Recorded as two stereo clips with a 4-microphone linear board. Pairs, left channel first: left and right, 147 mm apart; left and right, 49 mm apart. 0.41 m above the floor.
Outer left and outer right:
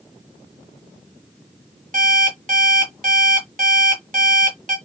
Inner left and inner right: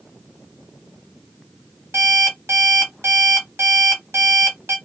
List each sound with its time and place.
1.9 s an alarm clock: 70° right (ahead or behind), 1.9 m